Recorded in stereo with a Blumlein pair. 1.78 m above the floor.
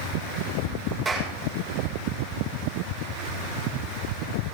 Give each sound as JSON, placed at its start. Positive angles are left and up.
{"t": 1.1, "sound": "a clap", "azimuth_deg": -25, "distance_m": 6.5}